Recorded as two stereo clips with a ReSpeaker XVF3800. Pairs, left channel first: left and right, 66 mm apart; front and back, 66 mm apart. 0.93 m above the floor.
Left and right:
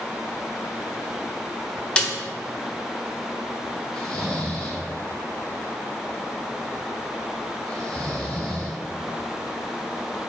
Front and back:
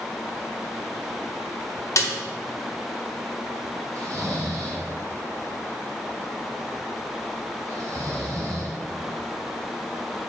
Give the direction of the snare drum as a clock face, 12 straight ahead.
11 o'clock.